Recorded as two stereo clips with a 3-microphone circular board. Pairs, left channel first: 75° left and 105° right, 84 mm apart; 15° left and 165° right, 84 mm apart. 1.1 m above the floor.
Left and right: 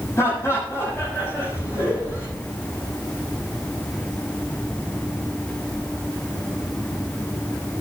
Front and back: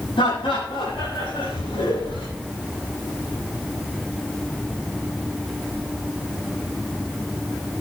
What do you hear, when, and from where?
0.2 s laughter: 20° left, 8.5 m